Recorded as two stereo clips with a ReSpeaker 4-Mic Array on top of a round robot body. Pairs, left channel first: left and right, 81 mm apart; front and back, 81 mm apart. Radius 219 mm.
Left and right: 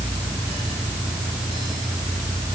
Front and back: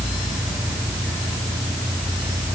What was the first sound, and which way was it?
Only background noise.